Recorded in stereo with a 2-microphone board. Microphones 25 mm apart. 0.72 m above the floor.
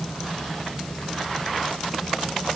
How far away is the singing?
No singing in this recording.